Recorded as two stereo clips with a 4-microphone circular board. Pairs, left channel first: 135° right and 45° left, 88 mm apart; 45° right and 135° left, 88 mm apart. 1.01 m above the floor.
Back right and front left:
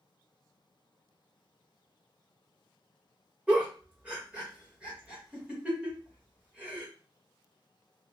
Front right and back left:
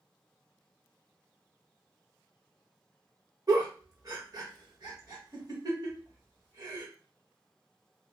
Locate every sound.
3.5 s a giggle: 115° left, 1.1 m